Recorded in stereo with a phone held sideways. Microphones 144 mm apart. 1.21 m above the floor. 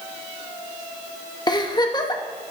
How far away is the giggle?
About 0.7 m.